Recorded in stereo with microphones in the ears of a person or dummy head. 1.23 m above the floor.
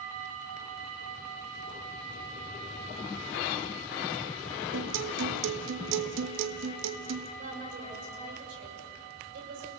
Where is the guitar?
75° right (ahead or behind), 1.3 m.